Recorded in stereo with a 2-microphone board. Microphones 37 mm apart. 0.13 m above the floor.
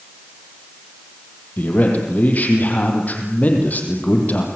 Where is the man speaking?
45° left (ahead or behind), 5.5 m.